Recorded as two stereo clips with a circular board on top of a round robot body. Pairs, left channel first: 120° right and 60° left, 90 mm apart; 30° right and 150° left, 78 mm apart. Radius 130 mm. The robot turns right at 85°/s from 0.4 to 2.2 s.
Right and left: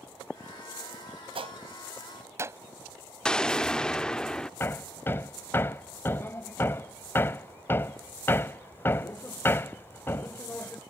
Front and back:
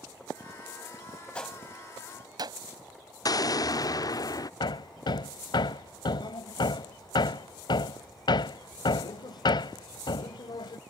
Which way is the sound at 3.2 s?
40° right.